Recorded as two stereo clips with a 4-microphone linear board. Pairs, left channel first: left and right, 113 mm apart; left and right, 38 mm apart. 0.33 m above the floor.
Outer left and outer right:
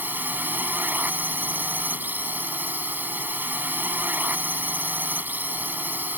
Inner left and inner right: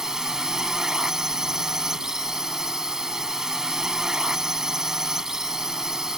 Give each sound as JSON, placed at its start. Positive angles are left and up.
{"t": 0.0, "sound": "a drone", "side_deg": -15}